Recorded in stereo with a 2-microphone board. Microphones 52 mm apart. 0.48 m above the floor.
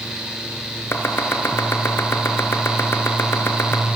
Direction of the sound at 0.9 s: 60° left (ahead or behind).